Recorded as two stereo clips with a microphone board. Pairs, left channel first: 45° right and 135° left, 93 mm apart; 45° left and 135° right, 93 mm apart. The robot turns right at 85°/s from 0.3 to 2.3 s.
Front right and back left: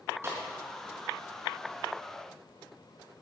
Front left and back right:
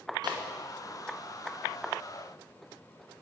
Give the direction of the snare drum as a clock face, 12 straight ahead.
6 o'clock.